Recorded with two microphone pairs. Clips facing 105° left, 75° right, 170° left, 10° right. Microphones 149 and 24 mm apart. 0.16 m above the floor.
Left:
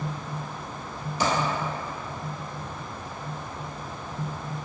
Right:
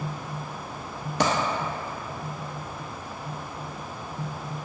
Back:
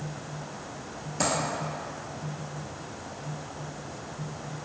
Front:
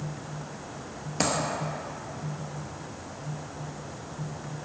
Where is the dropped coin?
70° right, 0.7 m.